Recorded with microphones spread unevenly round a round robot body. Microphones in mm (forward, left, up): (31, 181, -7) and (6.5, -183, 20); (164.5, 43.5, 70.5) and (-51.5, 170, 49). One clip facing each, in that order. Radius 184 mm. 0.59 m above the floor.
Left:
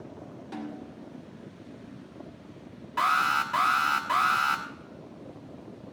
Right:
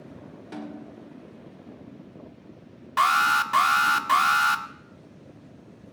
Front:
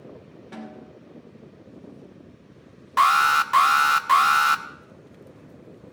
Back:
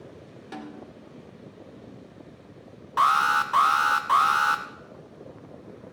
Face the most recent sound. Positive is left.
turn(degrees=-55)